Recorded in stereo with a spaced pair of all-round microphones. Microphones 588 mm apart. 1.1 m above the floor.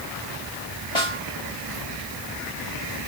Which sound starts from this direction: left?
A snare drum, at 0.9 s.